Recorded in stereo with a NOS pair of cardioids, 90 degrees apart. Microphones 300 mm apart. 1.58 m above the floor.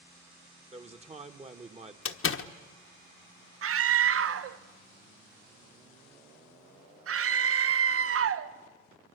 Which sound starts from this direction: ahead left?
A door slam, at 2.0 s.